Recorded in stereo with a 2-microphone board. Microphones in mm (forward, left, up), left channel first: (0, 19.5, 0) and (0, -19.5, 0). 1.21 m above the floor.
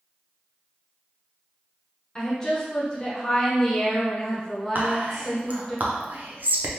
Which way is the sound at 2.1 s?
20° left (ahead or behind).